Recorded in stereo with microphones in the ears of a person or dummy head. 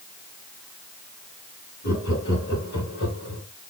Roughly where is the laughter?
Left.